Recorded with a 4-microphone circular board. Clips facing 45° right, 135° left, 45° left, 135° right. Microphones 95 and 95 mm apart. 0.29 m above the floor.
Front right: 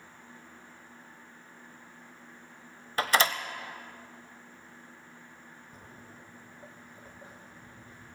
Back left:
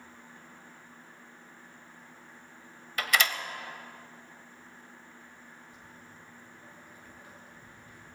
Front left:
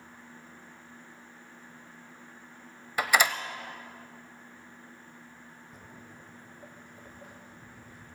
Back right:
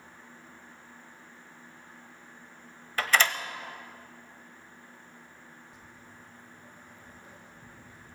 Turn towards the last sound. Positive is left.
turn(degrees=15)